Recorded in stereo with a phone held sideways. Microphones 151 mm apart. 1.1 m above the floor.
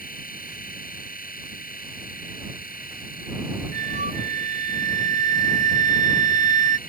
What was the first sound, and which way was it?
A machine running, 70° left (ahead or behind).